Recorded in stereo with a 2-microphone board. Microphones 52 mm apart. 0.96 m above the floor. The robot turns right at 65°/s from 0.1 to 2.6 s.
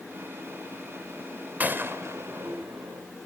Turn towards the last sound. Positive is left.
turn(degrees=-80)